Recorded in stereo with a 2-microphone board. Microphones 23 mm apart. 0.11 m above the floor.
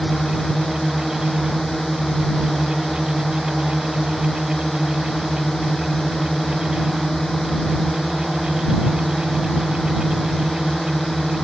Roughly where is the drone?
Centre.